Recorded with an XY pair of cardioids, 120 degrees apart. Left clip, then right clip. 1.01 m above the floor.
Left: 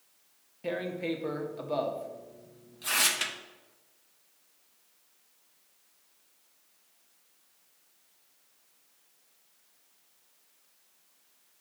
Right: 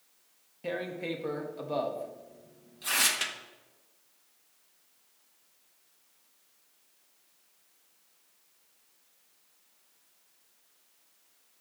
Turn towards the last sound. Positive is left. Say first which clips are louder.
# left 2 dB
turn(degrees=0)